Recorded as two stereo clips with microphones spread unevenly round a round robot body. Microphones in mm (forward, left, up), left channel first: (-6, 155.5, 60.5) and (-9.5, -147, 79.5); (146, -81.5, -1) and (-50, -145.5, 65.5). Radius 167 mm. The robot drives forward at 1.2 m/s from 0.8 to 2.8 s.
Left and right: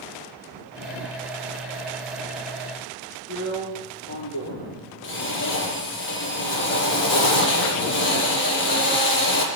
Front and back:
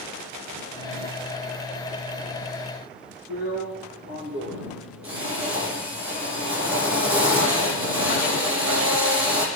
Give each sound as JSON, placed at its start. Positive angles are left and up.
{"t": 3.3, "sound": "a drill", "azimuth_deg": 140, "distance_m": 7.0}